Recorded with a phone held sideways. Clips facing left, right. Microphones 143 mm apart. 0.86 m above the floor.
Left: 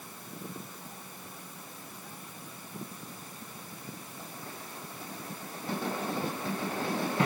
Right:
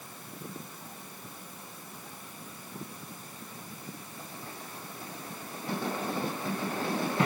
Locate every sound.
Only background noise.